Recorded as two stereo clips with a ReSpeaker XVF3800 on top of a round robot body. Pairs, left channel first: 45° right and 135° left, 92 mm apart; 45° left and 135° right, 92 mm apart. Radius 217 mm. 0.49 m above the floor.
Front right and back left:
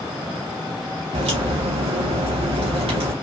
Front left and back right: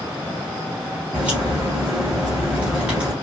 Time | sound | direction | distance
1.1 | a crack | 145° left | 0.6 m